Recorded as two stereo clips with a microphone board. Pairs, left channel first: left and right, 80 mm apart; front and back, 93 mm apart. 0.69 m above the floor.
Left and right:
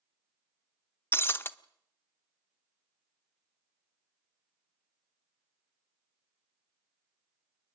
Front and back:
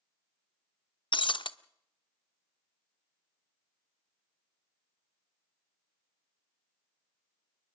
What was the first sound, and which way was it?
Breaking glass, 30° left.